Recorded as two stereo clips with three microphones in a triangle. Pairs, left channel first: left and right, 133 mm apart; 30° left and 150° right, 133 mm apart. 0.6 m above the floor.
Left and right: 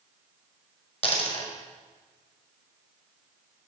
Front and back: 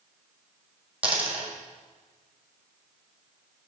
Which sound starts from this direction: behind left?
A dropped coin, at 1.0 s.